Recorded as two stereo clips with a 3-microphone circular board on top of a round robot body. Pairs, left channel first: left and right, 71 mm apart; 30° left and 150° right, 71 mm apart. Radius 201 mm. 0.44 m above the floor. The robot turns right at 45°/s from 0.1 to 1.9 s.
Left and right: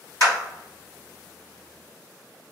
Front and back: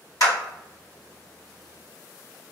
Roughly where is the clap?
Ahead left.